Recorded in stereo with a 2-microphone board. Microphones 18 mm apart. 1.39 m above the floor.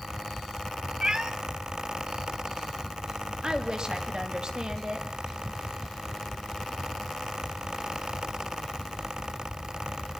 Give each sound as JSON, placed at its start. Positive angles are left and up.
{"t": 1.0, "sound": "a cat meowing", "side_deg": -45, "distance_m": 0.7}
{"t": 3.4, "sound": "a woman speaking", "side_deg": -40, "distance_m": 2.0}